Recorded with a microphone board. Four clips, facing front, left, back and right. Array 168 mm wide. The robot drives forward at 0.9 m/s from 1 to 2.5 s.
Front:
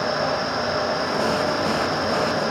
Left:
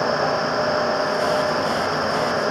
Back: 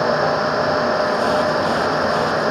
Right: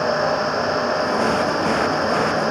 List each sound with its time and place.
Only background noise.